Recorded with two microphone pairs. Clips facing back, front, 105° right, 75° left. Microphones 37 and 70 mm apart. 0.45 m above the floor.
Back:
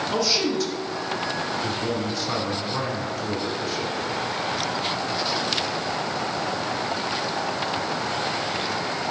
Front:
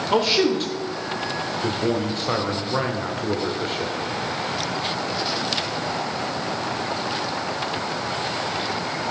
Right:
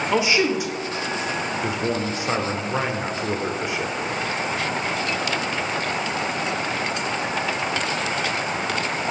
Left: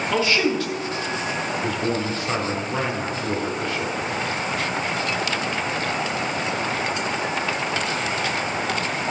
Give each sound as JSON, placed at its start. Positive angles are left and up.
{"t": 0.1, "sound": "a man speaking", "azimuth_deg": -35, "distance_m": 1.4}